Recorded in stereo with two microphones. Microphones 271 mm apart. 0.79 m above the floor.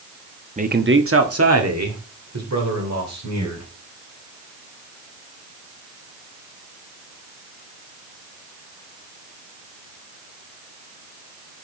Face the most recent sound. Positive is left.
turn(degrees=-85)